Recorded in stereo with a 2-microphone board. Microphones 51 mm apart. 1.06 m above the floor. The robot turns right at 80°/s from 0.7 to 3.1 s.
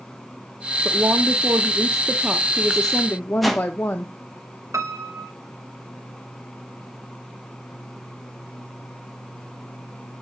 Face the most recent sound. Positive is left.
turn(degrees=-70)  # may be behind; listen again after turning